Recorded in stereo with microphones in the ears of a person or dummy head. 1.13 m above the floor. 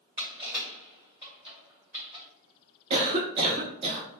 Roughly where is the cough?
Right.